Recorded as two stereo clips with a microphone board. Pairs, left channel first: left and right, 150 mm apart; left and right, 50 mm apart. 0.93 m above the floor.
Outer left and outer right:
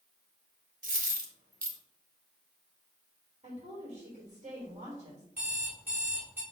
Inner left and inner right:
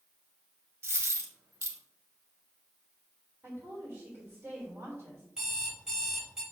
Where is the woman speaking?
45° right (ahead or behind), 3.5 m.